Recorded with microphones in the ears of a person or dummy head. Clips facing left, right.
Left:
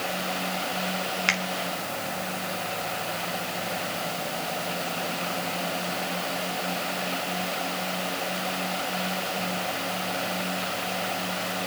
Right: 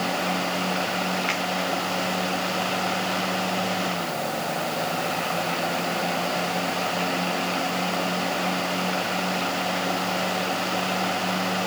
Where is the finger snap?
70° left (ahead or behind), 2.5 m.